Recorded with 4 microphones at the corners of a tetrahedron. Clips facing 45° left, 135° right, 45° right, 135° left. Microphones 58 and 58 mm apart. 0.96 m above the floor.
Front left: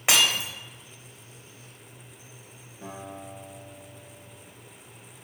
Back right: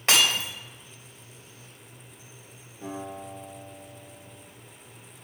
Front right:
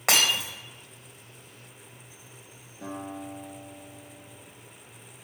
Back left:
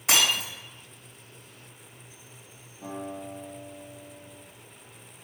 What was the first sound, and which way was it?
Breaking glass, 35° right.